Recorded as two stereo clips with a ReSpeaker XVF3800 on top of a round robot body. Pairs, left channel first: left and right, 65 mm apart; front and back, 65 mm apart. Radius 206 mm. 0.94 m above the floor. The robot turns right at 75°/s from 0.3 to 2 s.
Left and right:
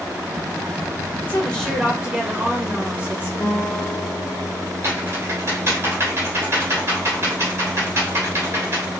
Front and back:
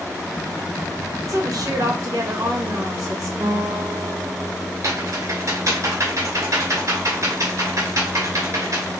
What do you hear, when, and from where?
1.3 s a woman speaking: 150° left, 1.6 m; by 3.3 s 160° right, 1.6 m
3.4 s a guitar: 130° left, 0.9 m
4.8 s typing on a keyboard: 145° right, 2 m